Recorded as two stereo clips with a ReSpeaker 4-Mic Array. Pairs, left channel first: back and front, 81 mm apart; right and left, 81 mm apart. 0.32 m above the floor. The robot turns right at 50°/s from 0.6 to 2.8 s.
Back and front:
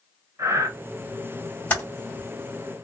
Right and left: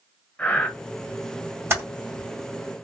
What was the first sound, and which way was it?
Breathing, 20° right.